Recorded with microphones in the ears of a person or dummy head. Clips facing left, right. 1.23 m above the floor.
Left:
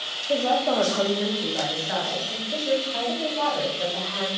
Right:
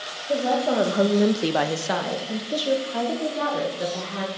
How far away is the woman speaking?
About 1.5 m.